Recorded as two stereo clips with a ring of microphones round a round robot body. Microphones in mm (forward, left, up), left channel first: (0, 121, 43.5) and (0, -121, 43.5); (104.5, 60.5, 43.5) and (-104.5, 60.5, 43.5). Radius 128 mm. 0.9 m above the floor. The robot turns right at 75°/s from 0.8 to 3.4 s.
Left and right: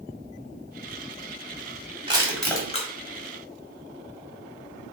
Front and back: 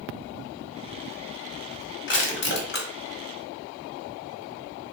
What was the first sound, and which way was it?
Crushing, 25° right.